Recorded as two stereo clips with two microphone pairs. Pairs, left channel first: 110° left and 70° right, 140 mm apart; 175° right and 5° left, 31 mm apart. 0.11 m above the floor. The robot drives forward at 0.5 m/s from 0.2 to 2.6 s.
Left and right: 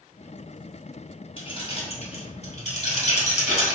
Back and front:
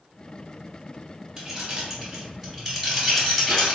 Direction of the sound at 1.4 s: 75° left.